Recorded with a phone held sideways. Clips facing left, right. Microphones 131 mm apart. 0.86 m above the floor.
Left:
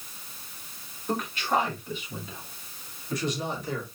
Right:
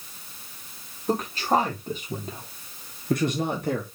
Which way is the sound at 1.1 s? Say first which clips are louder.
Right 4 dB; 35° right (ahead or behind).